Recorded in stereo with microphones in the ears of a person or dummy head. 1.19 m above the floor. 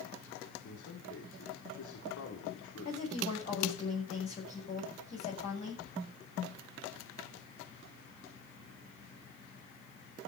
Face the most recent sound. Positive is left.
turn(degrees=35)  # may be behind; listen again after turning